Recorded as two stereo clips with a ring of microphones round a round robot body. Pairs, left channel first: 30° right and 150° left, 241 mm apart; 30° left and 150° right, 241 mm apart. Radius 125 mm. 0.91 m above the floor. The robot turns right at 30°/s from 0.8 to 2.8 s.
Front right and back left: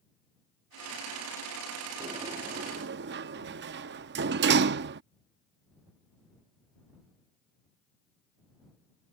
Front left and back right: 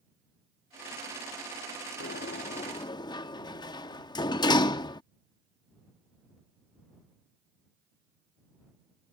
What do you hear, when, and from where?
2.0 s a sliding door: 80° left; by 5.0 s 105° left